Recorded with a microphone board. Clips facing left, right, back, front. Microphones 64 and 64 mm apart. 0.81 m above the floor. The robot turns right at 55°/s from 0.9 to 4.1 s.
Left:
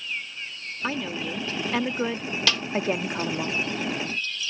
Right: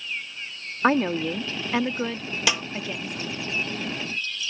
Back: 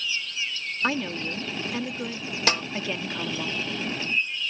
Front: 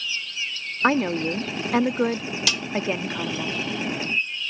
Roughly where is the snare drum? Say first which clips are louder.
Right 2 dB, back 5 dB; behind.